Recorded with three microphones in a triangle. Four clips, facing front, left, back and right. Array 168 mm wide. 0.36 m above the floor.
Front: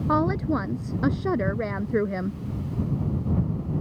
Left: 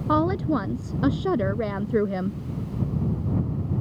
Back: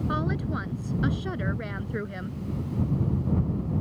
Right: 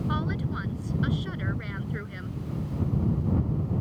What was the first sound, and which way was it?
A woman speaking, 55° left.